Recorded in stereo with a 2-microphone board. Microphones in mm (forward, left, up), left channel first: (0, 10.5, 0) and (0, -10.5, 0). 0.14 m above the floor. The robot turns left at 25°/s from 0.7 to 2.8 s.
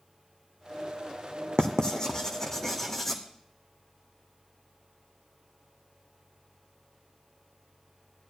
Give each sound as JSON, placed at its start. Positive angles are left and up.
{"t": 1.6, "sound": "writing", "side_deg": 45, "distance_m": 1.4}